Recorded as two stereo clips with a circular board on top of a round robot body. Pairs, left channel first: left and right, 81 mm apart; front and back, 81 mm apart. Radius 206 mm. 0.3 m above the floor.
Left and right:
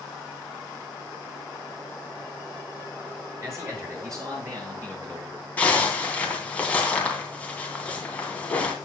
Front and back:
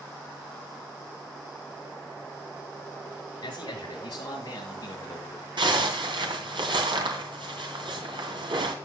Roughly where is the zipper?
Behind.